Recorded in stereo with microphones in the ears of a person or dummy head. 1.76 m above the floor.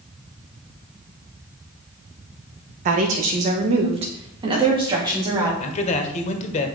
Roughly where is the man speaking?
Left.